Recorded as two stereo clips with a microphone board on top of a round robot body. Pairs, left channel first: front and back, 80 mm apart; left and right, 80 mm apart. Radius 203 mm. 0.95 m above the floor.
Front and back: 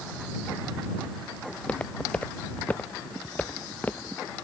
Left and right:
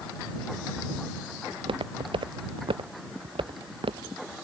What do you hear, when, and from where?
1.5 s footsteps: 75° right